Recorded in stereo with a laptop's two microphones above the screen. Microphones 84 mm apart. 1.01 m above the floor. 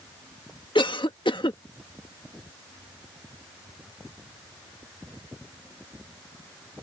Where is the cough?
70° left (ahead or behind).